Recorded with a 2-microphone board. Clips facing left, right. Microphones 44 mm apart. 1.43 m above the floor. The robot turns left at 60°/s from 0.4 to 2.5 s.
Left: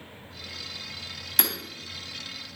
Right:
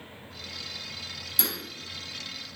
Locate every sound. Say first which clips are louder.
1.4 s hammering: left 4 dB; 65° left (ahead or behind), 3 m; by 1.5 s 55° left (ahead or behind), 3 m